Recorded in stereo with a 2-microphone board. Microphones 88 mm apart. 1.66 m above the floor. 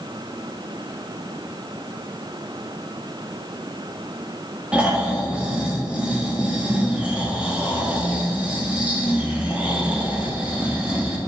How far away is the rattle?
No rattle in this recording.